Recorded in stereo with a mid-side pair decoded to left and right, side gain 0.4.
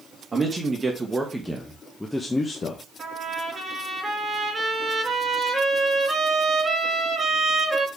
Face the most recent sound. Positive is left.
turn(degrees=-25)